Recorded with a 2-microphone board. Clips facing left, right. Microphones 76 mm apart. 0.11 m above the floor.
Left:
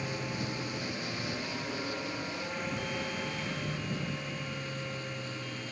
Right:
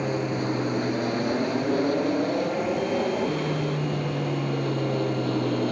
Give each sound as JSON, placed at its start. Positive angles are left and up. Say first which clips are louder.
{"t": 0.0, "sound": "an aircraft", "louder": "right 10 dB", "side_deg": -45}